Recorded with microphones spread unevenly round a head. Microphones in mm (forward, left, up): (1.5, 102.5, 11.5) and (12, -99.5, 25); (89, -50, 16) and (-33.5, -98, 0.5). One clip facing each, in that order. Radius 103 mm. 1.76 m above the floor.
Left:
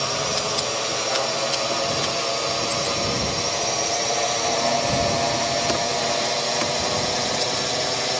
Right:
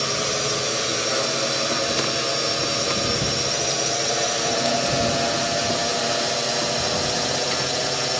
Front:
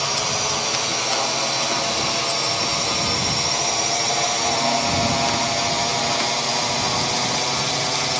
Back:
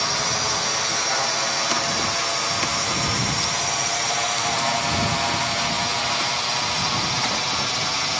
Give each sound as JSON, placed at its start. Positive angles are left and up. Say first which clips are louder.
{"t": 0.0, "sound": "a drone", "louder": "right 1 dB, front 1 dB", "azimuth_deg": -45}